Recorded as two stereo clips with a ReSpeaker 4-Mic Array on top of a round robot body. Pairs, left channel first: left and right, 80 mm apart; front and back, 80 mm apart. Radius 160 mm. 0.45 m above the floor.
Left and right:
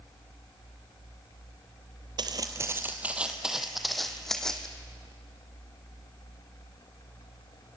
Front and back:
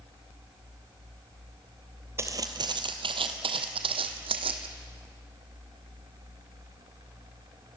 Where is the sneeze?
I don't hear a sneeze.